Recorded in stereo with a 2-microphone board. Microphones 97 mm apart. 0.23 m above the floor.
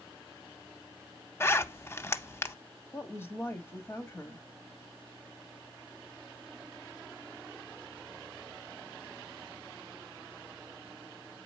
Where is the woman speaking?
25° left (ahead or behind), 1.2 m.